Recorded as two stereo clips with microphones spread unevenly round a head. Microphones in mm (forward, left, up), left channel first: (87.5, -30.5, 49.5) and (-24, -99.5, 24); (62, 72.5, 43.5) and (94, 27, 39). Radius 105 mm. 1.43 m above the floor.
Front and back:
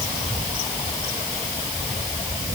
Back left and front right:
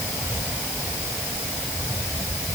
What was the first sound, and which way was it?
Only background noise.